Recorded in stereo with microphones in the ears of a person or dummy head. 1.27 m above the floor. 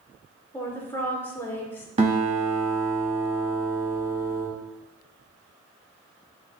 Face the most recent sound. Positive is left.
turn(degrees=-40)  # may be behind; listen again after turning